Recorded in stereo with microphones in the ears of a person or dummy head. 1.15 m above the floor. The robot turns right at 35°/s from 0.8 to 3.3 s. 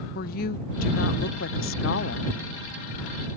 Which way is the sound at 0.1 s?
55° left.